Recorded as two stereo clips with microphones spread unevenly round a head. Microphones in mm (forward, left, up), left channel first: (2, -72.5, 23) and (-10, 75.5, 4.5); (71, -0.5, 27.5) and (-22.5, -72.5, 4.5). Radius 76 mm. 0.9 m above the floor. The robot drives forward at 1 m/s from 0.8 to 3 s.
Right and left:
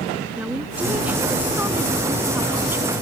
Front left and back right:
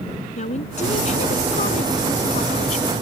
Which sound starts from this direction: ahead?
A woman speaking, at 0.4 s.